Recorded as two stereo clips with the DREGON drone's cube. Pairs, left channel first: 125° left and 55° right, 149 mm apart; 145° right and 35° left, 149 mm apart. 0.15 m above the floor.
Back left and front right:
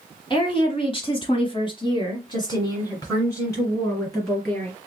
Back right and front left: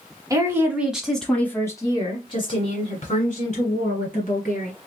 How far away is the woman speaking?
About 1.3 m.